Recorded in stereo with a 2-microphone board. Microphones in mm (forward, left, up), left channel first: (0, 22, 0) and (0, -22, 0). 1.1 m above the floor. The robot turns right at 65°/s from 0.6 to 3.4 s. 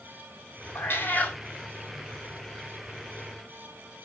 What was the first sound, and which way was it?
A cat meowing, 110° left.